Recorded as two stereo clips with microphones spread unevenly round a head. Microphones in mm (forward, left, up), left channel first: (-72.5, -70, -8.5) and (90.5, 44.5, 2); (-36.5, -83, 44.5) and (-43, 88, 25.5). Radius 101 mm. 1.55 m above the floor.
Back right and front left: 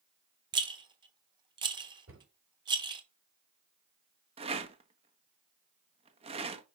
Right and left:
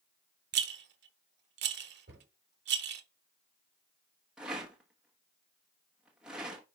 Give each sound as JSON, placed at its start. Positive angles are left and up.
{"t": 0.5, "sound": "a rattle", "azimuth_deg": 95, "distance_m": 0.9}
{"t": 2.1, "sound": "a cupboard door", "azimuth_deg": 55, "distance_m": 4.0}
{"t": 4.4, "sound": "a rattle", "azimuth_deg": 0, "distance_m": 1.0}